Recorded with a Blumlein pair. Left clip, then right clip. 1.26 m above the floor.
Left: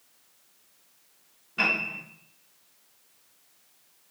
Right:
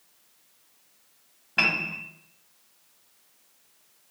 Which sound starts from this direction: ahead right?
A piano, at 1.6 s.